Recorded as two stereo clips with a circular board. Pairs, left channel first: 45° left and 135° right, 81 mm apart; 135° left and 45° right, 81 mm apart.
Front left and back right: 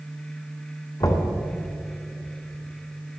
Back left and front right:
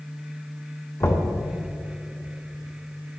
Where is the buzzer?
I don't hear a buzzer.